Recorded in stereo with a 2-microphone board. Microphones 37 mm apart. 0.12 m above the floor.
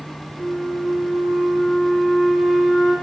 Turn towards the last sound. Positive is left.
turn(degrees=-15)  # may be behind; listen again after turning